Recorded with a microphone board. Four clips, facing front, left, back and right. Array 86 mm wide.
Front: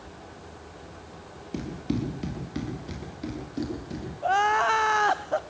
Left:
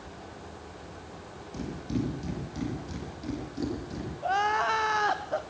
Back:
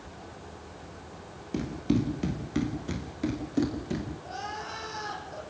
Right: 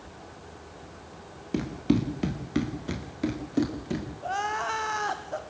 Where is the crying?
10° left, 1.5 m.